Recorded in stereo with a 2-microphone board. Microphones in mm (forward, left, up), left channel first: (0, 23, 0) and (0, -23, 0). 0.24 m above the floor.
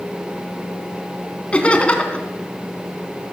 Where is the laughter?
20° left (ahead or behind), 2.5 m.